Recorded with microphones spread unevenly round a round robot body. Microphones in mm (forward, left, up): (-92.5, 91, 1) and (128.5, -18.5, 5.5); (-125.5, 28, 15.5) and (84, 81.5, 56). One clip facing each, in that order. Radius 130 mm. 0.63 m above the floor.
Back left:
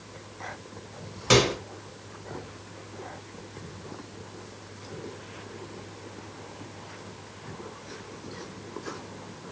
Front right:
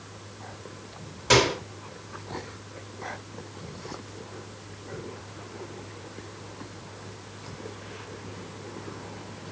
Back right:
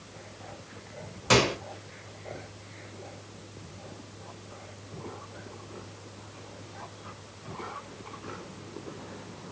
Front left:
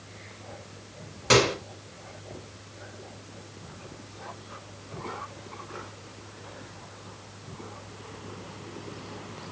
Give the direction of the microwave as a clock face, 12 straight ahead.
10 o'clock.